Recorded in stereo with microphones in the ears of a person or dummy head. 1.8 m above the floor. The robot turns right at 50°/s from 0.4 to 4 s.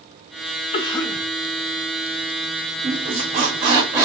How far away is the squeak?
About 0.7 m.